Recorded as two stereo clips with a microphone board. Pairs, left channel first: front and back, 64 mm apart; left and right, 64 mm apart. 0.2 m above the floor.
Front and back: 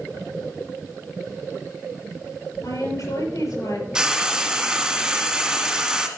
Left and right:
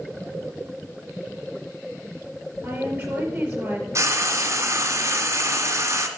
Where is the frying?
105° right, 1.5 m.